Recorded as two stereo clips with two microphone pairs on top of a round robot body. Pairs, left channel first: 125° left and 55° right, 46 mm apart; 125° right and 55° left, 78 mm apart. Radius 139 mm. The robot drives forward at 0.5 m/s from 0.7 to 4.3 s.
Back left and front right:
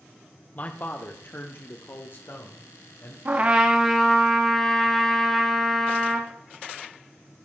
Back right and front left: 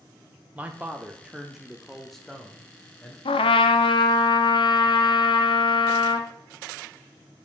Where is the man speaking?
95° left, 1.2 m; by 3.1 s 155° left, 1.7 m.